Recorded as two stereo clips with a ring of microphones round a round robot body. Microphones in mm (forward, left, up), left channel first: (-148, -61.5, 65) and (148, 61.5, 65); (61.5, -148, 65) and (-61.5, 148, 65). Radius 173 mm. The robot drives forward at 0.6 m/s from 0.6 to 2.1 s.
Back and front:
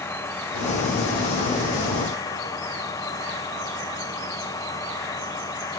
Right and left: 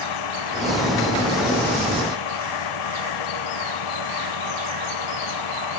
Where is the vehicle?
75° right.